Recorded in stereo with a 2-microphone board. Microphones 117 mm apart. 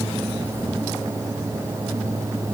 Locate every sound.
Only background noise.